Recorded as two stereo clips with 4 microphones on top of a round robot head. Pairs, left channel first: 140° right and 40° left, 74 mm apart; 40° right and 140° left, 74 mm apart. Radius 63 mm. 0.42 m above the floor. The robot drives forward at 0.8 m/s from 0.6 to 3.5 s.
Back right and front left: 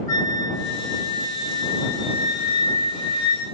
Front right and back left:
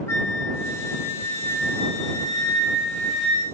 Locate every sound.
0.1 s a flute: 95° right, 3.5 m; by 3.5 s 130° right, 4 m